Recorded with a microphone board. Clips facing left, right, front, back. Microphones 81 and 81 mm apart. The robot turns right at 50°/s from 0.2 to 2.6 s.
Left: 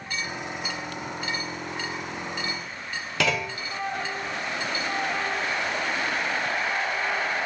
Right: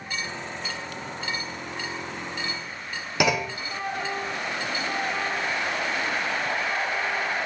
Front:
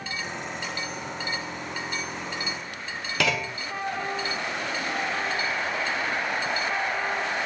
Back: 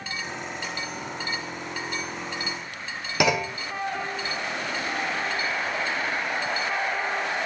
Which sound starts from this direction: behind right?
A clunk, at 3.2 s.